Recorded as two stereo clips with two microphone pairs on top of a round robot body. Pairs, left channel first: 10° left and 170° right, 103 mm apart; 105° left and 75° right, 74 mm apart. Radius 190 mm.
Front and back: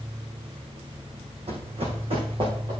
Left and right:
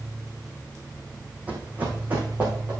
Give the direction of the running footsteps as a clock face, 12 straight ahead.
5 o'clock.